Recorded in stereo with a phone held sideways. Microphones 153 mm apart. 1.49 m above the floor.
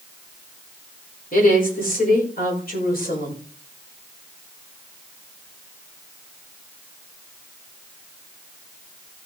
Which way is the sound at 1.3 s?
65° left (ahead or behind).